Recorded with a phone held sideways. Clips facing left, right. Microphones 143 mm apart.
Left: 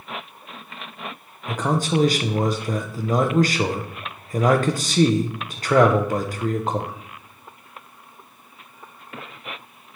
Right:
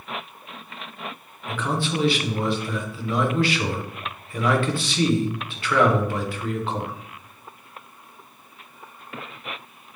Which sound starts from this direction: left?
A man speaking, at 1.5 s.